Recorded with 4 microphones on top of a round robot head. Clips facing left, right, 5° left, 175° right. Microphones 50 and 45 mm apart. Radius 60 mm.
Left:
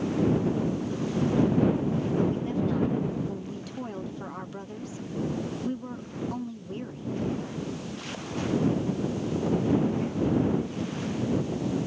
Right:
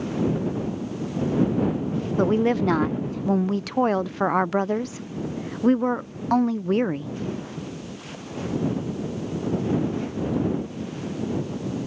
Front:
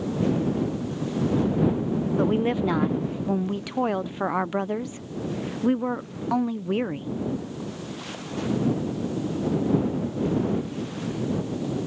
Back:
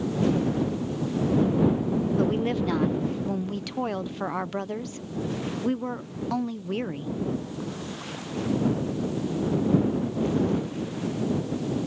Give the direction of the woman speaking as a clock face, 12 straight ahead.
2 o'clock.